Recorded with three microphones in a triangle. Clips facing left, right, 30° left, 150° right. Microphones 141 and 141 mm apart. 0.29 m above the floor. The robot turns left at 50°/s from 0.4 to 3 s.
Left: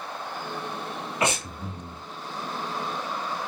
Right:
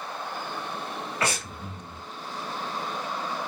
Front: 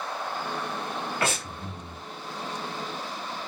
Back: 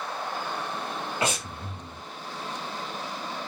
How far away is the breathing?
About 1.1 m.